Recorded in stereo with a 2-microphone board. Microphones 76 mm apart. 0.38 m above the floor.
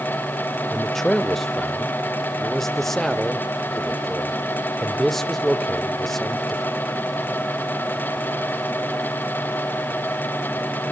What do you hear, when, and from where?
0.7 s a man speaking: 5° left (ahead or behind), 1.0 m